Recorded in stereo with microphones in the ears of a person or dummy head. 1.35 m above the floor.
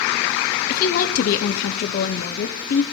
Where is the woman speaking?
50° left (ahead or behind), 0.5 m.